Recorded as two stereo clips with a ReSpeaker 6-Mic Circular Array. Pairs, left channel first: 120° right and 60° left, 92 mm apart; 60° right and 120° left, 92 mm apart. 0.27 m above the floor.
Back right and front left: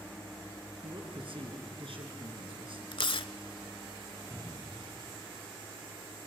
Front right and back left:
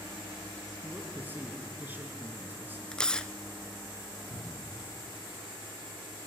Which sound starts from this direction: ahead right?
A cupboard door, at 4.3 s.